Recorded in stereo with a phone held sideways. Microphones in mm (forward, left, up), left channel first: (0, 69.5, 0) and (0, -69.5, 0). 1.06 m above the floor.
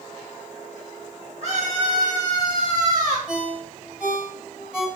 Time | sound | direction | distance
1.4 | a scream | 50° right (ahead or behind) | 1.8 m
3.3 | a ringtone | 5° right (ahead or behind) | 2.5 m